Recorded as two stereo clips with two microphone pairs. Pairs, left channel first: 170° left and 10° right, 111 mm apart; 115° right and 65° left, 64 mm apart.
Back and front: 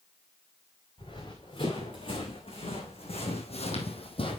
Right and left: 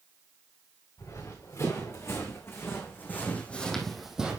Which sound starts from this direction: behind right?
Running footsteps, at 1.0 s.